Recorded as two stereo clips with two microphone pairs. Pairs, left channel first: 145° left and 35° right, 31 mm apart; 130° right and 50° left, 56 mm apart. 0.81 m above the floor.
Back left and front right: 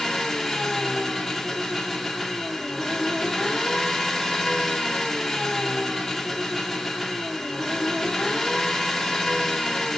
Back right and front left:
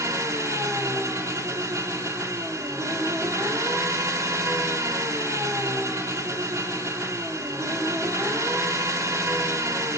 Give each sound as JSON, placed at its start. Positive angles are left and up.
{"t": 0.0, "sound": "an engine running", "azimuth_deg": 55, "distance_m": 1.5}